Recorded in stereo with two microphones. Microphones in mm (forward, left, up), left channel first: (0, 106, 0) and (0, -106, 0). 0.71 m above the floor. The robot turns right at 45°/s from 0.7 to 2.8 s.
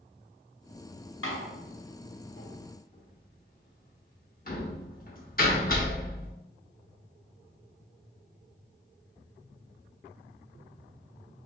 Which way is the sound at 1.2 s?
65° left (ahead or behind).